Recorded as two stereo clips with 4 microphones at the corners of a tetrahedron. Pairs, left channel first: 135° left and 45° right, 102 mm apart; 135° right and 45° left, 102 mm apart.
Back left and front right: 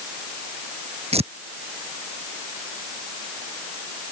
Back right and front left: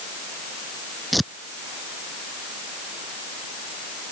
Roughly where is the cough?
I don't hear a cough.